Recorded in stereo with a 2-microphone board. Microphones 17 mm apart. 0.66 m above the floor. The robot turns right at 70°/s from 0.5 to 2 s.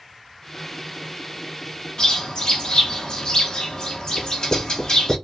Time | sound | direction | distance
2.0 | a bird | 45° left (ahead or behind) | 0.9 m
4.2 | writing | 10° right (ahead or behind) | 0.9 m